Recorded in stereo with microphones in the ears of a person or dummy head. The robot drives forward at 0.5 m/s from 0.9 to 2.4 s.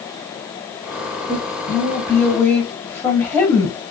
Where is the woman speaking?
20° left (ahead or behind), 1.1 m; by 3.8 s 15° left (ahead or behind), 1.6 m.